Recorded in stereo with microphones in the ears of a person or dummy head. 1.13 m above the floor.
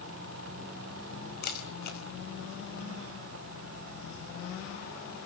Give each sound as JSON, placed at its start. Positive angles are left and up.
{"t": 1.4, "sound": "a camera shutter", "side_deg": 45, "distance_m": 4.0}